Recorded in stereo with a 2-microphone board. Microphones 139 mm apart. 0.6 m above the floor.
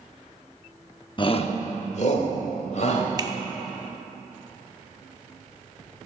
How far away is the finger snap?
About 0.6 m.